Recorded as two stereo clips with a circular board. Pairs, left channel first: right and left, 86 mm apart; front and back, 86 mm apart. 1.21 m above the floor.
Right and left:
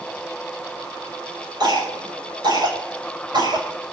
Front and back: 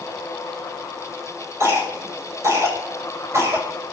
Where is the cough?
125° left, 6.5 m.